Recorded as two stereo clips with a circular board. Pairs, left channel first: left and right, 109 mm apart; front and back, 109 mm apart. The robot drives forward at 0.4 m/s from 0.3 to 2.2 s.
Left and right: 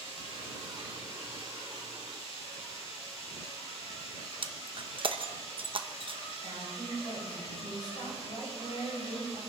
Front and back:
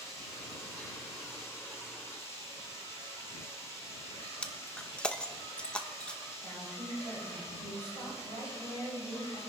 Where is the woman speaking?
65° left, 8.5 m.